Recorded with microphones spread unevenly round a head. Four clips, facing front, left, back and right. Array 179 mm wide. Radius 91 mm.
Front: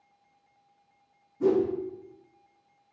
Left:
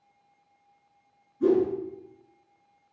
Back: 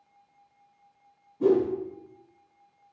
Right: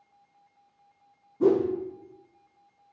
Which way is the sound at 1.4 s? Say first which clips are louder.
Even, back 2 dB; 100° right.